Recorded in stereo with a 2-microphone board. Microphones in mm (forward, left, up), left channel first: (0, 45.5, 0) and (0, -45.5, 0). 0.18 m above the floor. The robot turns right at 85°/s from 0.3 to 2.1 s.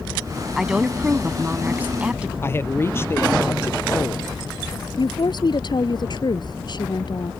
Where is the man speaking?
25° left (ahead or behind).